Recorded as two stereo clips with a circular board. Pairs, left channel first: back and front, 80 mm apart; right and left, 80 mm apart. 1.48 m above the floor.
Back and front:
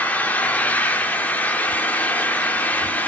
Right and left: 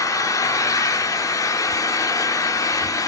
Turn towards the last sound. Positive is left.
turn(degrees=-115)